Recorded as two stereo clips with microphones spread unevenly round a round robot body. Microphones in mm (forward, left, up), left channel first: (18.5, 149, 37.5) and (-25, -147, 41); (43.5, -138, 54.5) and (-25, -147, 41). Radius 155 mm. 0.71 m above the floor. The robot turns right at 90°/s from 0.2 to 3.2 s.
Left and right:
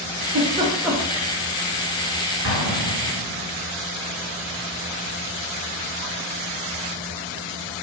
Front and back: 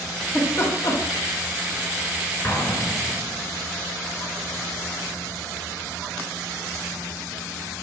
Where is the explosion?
55° right, 3 m; by 3.5 s 15° left, 3 m.